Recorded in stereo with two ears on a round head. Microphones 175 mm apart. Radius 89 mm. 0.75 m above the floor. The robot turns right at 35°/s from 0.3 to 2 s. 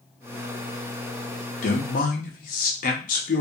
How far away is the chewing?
No chewing in this recording.